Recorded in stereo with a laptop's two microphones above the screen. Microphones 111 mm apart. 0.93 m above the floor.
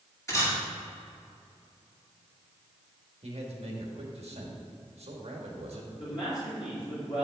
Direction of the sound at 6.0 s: 50° left (ahead or behind).